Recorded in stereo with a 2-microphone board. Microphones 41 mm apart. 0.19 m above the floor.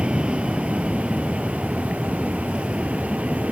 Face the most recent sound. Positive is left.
turn(degrees=-30)  # may be behind; listen again after turning